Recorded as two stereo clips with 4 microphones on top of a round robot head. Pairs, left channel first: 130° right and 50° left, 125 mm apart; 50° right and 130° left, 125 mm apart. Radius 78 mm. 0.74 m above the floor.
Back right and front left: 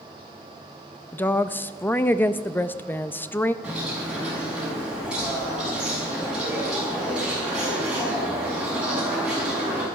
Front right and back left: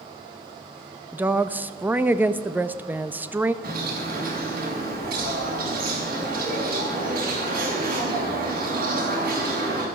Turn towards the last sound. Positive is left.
turn(degrees=135)